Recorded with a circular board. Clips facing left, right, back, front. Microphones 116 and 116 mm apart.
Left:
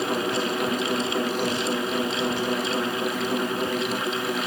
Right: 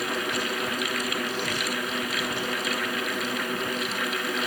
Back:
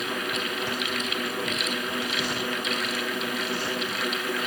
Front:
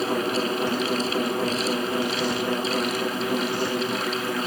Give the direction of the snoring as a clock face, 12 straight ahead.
No snoring in this recording.